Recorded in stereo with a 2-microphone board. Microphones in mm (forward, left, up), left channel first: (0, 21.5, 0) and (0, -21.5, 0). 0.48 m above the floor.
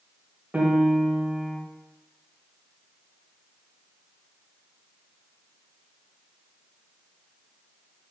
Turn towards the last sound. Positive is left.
turn(degrees=-25)  # may be behind; listen again after turning